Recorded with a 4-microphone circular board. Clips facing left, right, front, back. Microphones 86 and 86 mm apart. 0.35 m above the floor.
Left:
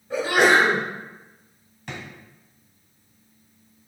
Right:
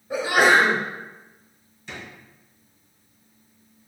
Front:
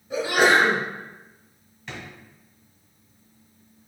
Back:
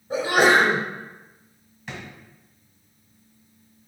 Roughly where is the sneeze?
Behind.